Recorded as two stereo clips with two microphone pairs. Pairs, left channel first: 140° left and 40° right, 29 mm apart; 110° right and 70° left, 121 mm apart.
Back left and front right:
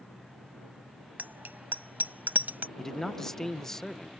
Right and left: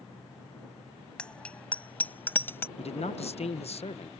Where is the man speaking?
140° right.